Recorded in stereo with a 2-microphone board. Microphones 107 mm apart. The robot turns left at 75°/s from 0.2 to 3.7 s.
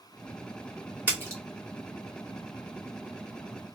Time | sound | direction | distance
1.1 | a splash | 15° right (ahead or behind) | 1.1 m